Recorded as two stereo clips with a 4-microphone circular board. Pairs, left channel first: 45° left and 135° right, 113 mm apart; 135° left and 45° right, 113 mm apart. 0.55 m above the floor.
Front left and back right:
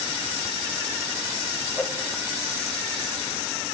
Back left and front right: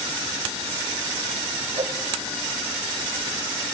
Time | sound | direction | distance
1.8 | a whoosh | 30° right | 2.5 m